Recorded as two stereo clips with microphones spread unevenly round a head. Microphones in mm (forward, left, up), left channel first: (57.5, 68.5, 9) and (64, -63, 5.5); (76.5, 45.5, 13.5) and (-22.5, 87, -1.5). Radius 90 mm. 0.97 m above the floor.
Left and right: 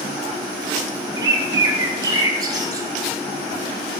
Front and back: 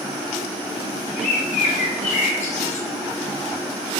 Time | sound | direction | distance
1.2 | a bird | 25° right | 1.0 m